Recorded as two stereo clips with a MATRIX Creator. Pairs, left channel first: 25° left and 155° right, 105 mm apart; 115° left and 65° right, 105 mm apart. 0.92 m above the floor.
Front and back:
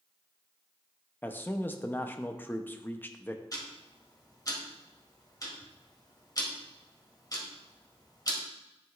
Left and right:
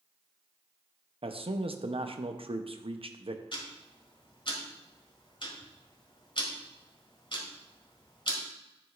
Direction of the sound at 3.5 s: 75° left.